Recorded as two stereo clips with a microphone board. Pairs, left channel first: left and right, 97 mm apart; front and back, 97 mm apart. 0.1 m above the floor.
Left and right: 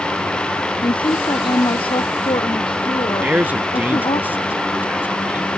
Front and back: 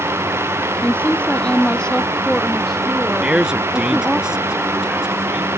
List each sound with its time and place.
0.8 s a woman speaking: 70° left; by 4.2 s 95° left
3.2 s a man speaking: 115° right